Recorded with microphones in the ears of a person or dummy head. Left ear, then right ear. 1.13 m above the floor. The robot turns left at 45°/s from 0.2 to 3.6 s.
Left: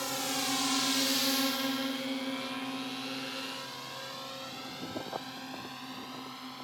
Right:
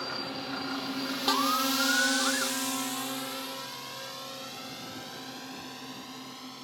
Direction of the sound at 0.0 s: 70° left (ahead or behind).